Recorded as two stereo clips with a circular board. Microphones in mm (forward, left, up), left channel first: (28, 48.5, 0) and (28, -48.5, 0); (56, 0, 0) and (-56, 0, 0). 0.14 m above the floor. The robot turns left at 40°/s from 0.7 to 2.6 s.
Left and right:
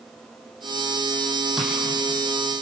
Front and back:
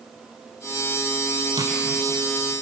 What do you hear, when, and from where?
1.6 s tapping: 175° right, 6.5 m; by 1.7 s straight behind, 6.5 m